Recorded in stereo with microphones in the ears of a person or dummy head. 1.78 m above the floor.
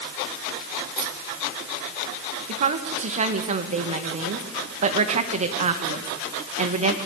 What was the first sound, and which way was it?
Keys jangling, 60° right (ahead or behind).